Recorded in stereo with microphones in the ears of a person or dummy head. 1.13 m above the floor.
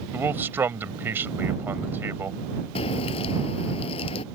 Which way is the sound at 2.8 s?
35° left (ahead or behind).